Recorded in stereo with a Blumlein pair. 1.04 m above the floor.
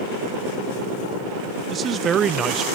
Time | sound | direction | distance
1.7 | a man speaking | 25° right | ?